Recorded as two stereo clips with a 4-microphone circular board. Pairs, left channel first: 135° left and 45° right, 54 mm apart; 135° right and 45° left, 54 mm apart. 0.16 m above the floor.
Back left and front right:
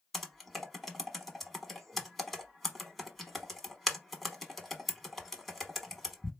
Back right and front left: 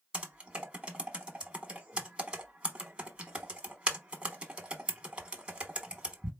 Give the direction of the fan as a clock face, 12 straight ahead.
No fan in this recording.